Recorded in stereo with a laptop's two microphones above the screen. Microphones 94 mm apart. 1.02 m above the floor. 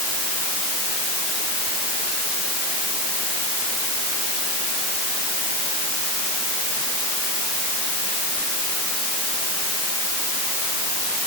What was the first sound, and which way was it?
Only background noise.